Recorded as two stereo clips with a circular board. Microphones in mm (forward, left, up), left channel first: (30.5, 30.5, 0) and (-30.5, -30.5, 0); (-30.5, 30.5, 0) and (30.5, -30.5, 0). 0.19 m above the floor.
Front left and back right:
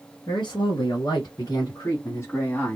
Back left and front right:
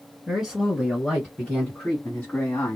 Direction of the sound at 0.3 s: 45° left.